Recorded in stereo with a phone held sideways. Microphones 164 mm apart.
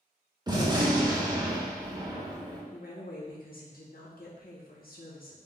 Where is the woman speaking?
60° left (ahead or behind), 0.8 m.